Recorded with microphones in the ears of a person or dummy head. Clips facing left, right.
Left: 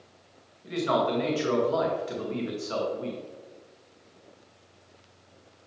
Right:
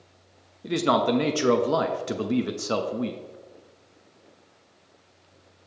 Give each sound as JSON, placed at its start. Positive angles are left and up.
{"t": 0.6, "sound": "a man speaking", "side_deg": -65, "distance_m": 0.6}